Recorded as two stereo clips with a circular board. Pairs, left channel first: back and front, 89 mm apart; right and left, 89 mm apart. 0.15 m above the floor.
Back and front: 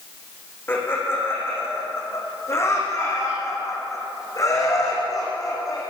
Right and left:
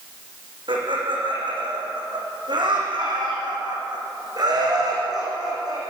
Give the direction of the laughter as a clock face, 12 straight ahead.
8 o'clock.